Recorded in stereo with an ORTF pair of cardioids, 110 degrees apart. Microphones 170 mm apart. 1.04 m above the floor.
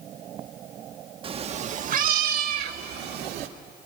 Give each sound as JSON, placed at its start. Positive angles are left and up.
{"t": 1.2, "sound": "a cat meowing", "azimuth_deg": -35, "distance_m": 0.9}